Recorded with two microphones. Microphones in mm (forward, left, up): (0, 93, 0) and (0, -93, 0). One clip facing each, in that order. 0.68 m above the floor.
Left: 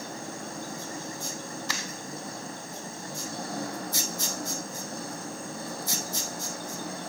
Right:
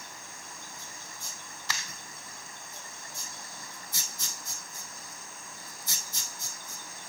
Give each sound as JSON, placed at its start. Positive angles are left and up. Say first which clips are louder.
{"t": 0.0, "sound": "an engine running", "louder": "left 13 dB", "side_deg": 65}